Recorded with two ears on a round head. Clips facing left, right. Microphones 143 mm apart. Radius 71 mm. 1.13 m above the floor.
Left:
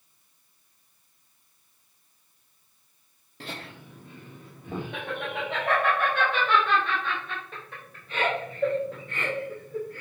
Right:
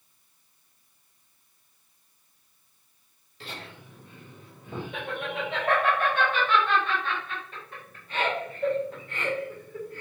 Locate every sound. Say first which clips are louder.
3.4 s laughter: left 2 dB; 40° left (ahead or behind), 2 m; by 10.0 s 60° left (ahead or behind), 5 m